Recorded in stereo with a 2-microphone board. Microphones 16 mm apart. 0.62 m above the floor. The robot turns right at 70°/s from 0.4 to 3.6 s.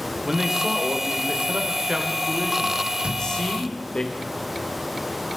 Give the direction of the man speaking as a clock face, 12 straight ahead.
5 o'clock.